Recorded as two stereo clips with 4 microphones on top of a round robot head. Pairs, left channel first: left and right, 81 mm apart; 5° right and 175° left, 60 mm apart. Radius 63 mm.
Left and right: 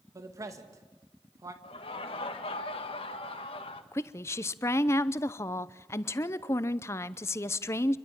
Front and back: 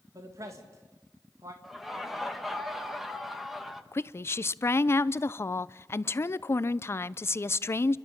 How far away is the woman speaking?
About 0.7 m.